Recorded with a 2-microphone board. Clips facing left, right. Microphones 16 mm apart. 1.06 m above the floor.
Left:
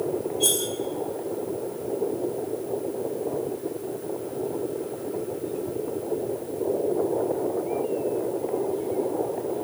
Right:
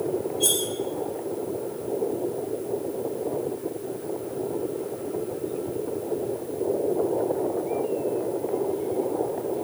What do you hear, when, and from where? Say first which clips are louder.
0.4 s cutlery clinking: even; 5° left (ahead or behind), 2.5 m